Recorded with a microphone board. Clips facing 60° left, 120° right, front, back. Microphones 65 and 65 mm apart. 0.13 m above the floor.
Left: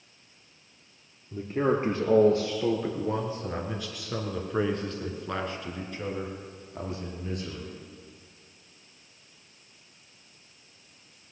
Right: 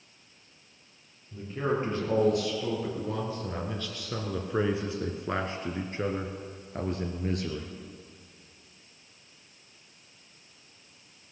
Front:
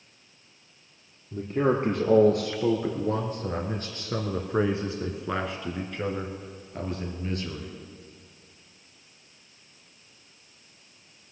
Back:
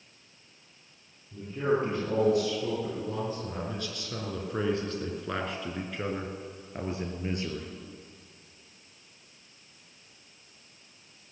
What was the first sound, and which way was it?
A man speaking, 20° left.